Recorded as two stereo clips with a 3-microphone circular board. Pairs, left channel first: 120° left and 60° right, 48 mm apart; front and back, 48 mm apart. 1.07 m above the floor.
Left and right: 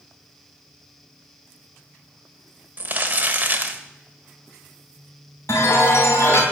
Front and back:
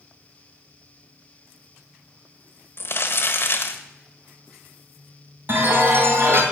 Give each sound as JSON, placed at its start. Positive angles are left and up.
{"t": 2.8, "sound": "crumpling", "azimuth_deg": -15, "distance_m": 1.2}
{"t": 5.5, "sound": "a chime", "azimuth_deg": 145, "distance_m": 3.0}